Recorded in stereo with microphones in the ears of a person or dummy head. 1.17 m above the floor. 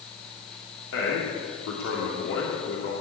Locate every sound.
0.9 s a man speaking: 85° left, 3 m